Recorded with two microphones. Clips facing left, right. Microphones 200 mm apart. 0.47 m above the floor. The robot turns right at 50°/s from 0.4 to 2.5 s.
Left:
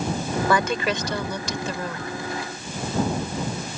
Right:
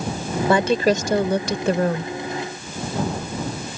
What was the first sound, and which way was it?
A woman speaking, 150° right.